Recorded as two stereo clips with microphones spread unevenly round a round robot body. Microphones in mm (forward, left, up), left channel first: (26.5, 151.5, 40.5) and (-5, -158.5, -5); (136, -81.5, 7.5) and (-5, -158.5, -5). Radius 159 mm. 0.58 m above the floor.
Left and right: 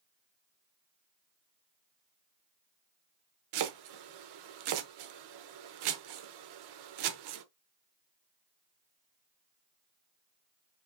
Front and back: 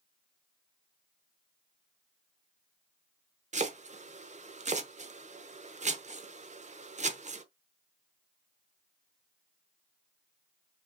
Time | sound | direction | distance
3.5 | chopping | 100° right | 0.8 m